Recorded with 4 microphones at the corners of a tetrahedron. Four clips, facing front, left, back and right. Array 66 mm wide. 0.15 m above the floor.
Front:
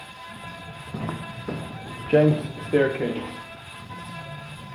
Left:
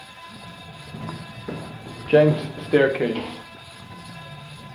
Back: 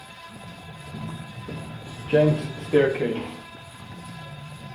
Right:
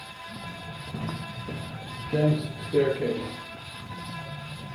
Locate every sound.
0.9 s footsteps: straight ahead, 0.5 m; by 3.4 s 85° left, 2 m